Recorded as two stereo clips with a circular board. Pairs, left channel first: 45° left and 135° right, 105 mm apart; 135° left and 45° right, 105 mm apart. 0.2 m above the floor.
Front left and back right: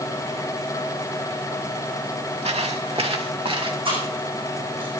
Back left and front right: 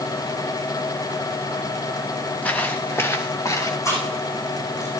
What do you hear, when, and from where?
2.4 s footsteps: 150° right, 2 m; by 3.8 s 170° right, 2.5 m
3.9 s chewing: 165° right, 7 m